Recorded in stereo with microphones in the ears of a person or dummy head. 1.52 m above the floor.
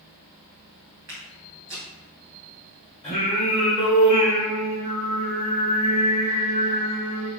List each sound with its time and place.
1.1 s footsteps: 10° right (ahead or behind), 1.5 m
3.0 s singing: 35° left (ahead or behind), 1.6 m